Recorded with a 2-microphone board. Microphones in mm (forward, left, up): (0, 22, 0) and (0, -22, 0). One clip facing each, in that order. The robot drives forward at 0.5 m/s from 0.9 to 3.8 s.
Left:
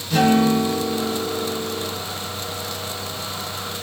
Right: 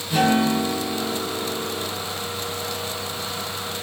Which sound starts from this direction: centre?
A guitar, at 0.1 s.